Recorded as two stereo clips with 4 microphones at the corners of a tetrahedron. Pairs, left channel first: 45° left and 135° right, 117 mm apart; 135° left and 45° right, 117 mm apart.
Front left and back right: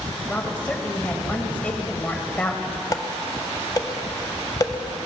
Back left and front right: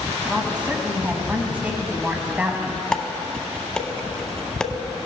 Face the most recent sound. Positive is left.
turn(degrees=60)